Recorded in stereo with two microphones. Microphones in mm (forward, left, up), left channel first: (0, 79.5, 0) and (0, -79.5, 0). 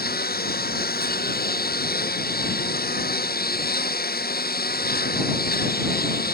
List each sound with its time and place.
0.0 s a lawn mower: 75° left (ahead or behind)